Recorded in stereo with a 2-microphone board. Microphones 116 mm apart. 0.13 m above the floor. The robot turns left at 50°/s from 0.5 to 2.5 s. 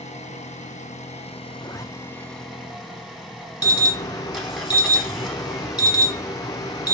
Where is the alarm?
30° left (ahead or behind), 0.9 m.